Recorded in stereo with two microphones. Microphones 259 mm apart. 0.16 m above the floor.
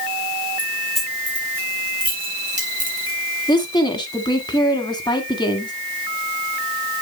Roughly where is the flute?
I don't hear a flute.